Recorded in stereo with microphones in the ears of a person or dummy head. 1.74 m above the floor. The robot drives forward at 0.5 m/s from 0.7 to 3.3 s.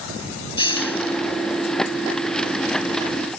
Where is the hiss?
25° left (ahead or behind).